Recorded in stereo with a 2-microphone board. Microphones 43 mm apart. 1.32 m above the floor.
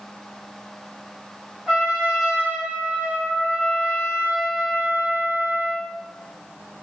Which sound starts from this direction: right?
A trumpet, at 1.7 s.